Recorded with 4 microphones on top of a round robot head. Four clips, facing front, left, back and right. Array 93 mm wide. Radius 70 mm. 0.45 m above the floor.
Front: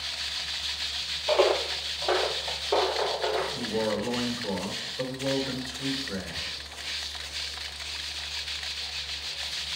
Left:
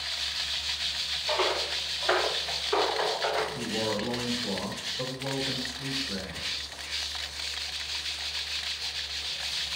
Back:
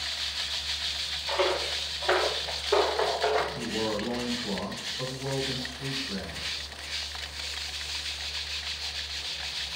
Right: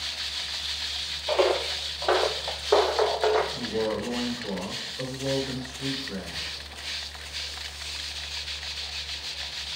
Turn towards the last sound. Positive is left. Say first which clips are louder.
# right 3 dB, front 2 dB
turn(degrees=-20)